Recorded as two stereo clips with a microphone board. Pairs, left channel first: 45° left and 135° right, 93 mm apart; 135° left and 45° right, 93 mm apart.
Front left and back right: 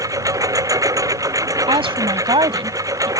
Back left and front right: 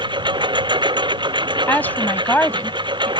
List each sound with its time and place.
0.0 s a lawn mower: 80° right
1.7 s a woman speaking: 155° right